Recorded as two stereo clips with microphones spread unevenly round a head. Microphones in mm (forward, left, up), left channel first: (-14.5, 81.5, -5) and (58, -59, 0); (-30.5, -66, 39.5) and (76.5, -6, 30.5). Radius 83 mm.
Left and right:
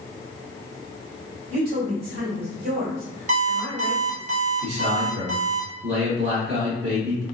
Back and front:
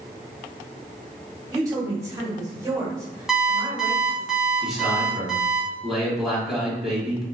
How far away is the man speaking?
About 1.5 m.